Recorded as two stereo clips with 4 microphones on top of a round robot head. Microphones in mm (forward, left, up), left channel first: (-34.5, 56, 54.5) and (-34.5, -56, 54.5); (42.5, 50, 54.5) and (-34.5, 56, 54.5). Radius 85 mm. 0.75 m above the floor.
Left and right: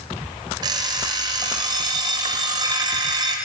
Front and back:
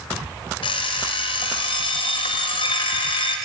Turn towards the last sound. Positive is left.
turn(degrees=-30)